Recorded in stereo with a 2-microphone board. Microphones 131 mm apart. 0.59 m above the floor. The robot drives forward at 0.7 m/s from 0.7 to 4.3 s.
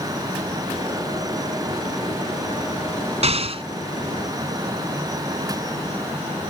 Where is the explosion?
55° right (ahead or behind); by 3.6 s 45° right (ahead or behind).